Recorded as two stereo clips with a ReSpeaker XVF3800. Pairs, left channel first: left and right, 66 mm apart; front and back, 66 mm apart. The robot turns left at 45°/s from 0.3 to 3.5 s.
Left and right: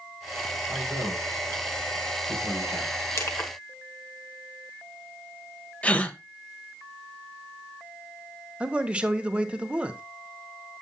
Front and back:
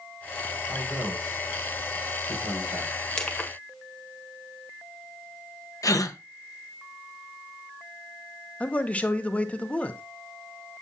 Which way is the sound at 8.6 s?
40° right.